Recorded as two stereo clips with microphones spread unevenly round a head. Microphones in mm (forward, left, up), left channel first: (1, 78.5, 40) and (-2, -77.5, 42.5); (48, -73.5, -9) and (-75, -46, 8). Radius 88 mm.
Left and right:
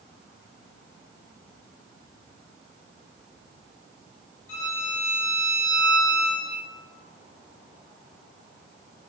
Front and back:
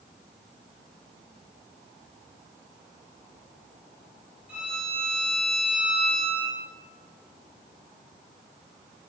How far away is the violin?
About 5 m.